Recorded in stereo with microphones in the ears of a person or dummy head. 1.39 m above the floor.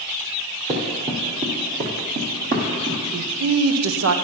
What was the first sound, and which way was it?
Running footsteps, 20° right (ahead or behind).